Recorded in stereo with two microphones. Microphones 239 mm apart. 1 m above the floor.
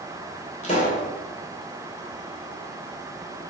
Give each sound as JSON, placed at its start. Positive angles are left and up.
{"t": 0.6, "sound": "a pop", "side_deg": 30, "distance_m": 3.5}